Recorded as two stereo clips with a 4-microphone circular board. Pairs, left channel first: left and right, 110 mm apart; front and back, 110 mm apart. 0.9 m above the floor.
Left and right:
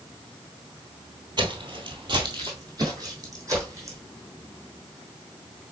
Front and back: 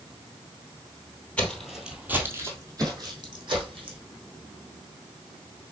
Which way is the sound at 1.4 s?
75° right.